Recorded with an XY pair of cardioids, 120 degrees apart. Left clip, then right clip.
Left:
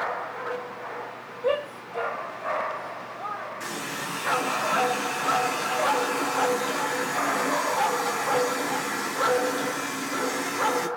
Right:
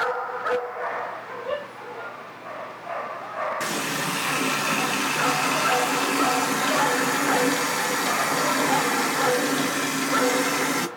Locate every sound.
1.4 s a shout: 70° left, 2.5 m
3.6 s a running tap: 50° right, 0.9 m